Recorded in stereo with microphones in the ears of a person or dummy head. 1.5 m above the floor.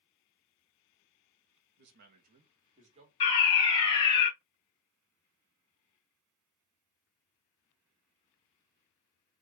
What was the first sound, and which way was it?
A man speaking, 60° right (ahead or behind).